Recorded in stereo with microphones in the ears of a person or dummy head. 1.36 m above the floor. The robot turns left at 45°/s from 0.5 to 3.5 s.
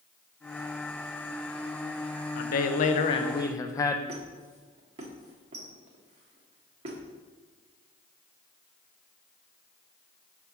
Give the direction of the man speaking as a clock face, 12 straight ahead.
10 o'clock.